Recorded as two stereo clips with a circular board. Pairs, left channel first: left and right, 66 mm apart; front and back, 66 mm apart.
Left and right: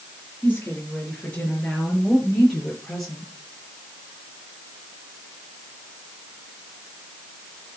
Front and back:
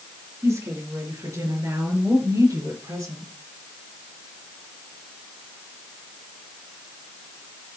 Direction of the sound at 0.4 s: 150° left.